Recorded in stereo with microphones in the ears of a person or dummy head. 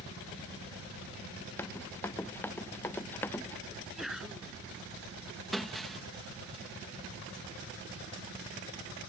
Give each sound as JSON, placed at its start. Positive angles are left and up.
{"t": 1.6, "sound": "running footsteps", "side_deg": 10}
{"t": 3.7, "sound": "a sneeze", "side_deg": -5}
{"t": 5.5, "sound": "breaking glass", "side_deg": 5}